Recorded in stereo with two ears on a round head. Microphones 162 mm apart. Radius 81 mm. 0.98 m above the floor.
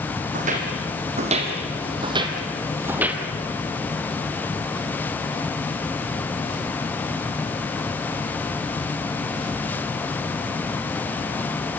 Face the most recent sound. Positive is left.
turn(degrees=-5)  # may be behind; listen again after turning